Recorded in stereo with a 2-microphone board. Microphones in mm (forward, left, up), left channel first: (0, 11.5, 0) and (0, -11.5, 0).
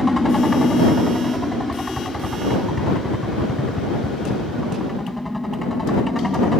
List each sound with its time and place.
0.0 s a helicopter: 5° left (ahead or behind)